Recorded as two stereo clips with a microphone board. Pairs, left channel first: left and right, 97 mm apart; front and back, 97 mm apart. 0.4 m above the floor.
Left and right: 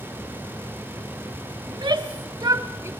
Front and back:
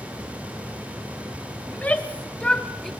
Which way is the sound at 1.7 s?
70° right.